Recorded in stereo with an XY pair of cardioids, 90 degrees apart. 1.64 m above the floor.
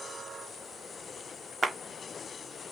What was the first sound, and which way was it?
A clap, 20° right.